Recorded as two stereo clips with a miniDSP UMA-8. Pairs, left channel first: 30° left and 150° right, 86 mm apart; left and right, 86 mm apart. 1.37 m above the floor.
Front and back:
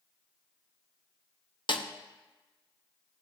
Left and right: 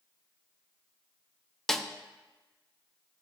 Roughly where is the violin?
I don't hear a violin.